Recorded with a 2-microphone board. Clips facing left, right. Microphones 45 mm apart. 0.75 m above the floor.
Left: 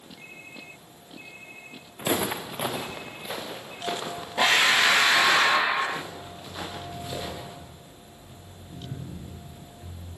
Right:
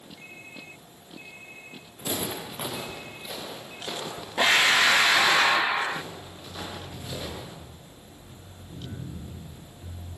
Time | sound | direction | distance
2.0 | footsteps | 45° left (ahead or behind) | 3 m